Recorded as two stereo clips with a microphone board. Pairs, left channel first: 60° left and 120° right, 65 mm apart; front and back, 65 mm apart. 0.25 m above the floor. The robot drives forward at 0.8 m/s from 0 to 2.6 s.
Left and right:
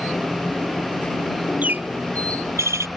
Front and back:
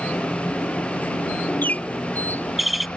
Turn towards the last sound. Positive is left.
turn(degrees=-90)